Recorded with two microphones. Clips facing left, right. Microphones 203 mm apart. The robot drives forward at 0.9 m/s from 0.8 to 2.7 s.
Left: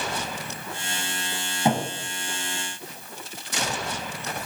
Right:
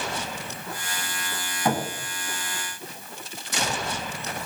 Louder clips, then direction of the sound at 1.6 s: Left 2 dB; 20° left (ahead or behind).